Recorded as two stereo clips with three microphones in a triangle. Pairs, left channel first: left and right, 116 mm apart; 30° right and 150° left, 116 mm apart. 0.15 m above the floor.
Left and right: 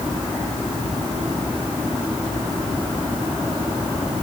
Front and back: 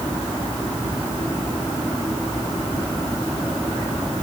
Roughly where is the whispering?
No whispering in this recording.